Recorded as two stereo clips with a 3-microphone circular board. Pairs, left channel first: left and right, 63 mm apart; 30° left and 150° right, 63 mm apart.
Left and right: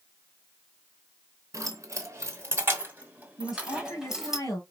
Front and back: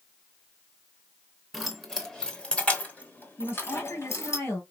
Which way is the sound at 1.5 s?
60° right.